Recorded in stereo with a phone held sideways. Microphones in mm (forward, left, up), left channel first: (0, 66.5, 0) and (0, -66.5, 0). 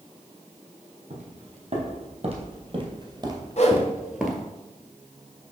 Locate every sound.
1.1 s footsteps: 60° right (ahead or behind), 2.5 m; by 4.5 s 5° left (ahead or behind), 1.3 m
3.6 s a whoosh: 55° left (ahead or behind), 1.1 m